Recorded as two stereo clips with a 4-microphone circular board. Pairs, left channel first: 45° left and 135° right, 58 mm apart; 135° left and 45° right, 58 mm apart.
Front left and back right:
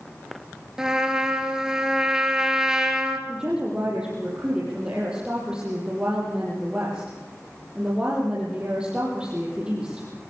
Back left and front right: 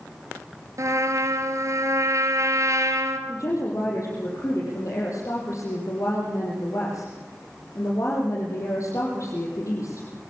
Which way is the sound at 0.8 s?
60° right.